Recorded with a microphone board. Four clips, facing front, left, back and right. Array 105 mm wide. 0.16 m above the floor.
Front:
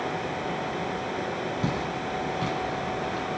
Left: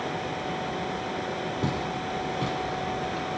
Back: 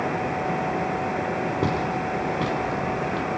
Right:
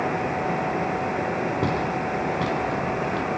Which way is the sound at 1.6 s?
140° right.